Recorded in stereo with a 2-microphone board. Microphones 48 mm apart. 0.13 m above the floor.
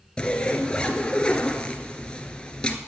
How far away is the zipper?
About 1.1 m.